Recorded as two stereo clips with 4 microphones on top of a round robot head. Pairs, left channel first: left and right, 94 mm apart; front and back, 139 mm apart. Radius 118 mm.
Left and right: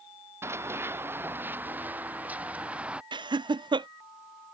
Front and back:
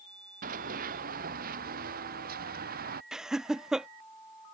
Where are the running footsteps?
150° right; by 3.0 s 165° right.